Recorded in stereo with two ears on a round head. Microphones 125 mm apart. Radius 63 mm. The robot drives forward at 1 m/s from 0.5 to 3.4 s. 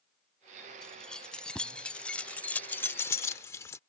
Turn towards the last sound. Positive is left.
turn(degrees=20)  # may be behind; listen again after turning